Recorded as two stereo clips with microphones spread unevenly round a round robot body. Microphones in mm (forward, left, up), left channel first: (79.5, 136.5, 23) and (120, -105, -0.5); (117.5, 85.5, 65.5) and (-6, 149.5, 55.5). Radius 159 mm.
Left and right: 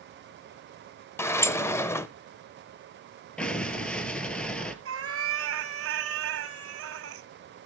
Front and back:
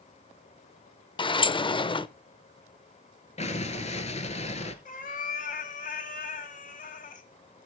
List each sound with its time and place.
1.2 s a sliding door: 15° left, 0.5 m
3.4 s an explosion: 15° left, 1.1 m
4.8 s a cat meowing: 55° right, 0.9 m